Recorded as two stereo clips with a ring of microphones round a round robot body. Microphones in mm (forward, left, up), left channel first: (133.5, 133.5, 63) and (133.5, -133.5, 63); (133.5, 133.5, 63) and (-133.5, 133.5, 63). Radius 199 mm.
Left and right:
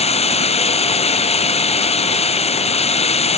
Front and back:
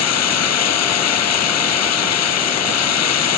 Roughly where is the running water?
Ahead left.